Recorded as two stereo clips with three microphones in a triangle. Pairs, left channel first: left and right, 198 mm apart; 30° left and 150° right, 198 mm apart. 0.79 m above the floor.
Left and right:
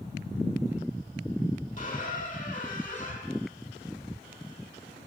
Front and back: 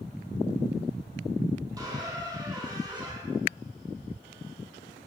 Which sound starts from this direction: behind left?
A squeak, at 1.8 s.